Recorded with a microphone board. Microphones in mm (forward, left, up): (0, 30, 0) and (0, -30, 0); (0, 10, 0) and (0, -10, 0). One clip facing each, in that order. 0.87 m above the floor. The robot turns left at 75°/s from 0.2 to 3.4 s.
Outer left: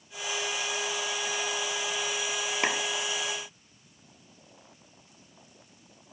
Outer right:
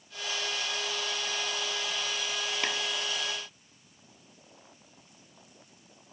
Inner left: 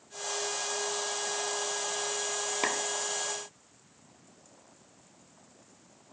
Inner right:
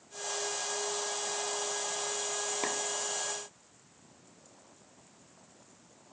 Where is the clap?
25° left (ahead or behind); by 2.8 s 45° left (ahead or behind).